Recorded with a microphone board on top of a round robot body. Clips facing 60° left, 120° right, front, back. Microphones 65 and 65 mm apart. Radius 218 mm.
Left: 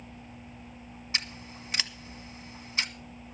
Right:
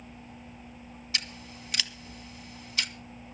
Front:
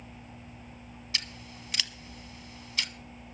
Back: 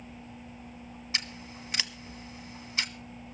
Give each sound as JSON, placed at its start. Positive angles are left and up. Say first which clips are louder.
{"t": 1.1, "sound": "scissors", "louder": "left 1 dB, back 2 dB", "azimuth_deg": 120, "distance_m": 1.4}